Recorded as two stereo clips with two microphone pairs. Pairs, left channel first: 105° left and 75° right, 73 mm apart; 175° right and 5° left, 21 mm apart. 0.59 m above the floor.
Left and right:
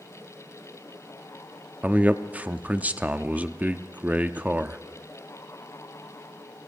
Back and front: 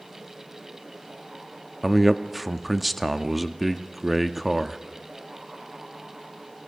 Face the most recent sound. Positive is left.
turn(degrees=-60)